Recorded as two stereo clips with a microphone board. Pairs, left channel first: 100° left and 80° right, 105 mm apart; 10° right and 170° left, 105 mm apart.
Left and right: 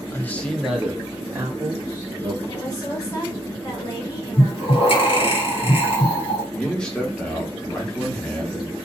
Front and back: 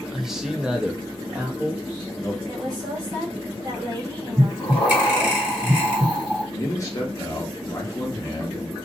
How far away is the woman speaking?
About 1.4 m.